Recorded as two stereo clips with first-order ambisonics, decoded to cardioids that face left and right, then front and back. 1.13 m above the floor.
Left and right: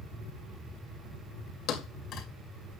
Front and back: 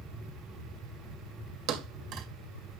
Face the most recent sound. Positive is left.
turn(degrees=145)